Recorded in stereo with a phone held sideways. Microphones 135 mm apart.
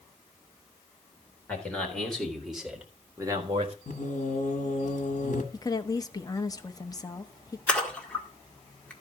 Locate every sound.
1.5 s a man speaking: 10° left (ahead or behind), 3.5 m; by 3.8 s 45° right (ahead or behind), 1.3 m
3.9 s singing: 65° left (ahead or behind), 1.6 m
5.5 s a woman speaking: 25° left (ahead or behind), 0.7 m
7.7 s a splash: 10° left (ahead or behind), 1.7 m